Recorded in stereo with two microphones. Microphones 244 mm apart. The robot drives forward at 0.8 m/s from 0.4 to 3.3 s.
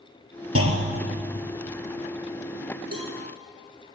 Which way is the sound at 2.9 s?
70° right (ahead or behind).